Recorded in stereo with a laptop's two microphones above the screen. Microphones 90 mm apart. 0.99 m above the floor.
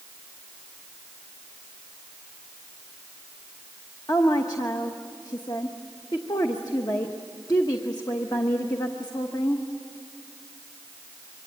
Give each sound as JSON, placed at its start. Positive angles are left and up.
{"t": 4.1, "sound": "a woman speaking", "side_deg": 45, "distance_m": 1.1}